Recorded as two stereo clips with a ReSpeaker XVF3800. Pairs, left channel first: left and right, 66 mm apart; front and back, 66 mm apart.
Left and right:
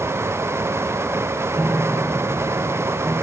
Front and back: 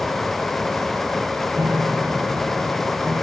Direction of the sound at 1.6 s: 150° right.